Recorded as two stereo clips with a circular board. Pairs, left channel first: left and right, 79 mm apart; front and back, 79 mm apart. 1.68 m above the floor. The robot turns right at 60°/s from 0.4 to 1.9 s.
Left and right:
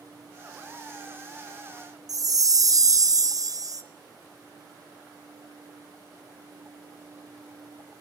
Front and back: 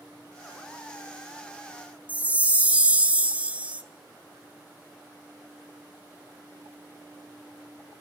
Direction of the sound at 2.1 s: 110° right.